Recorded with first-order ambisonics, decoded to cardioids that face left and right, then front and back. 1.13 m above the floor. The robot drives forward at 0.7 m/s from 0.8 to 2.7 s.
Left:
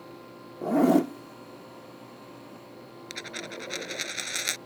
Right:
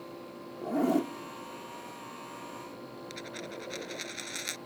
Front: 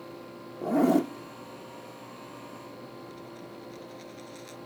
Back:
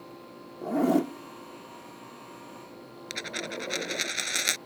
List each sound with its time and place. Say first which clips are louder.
0.6 s a zipper: left 6 dB, front 1 dB; 70° left; by 4.1 s 165° left
3.1 s a dropped coin: left 6 dB, back 10 dB; 155° left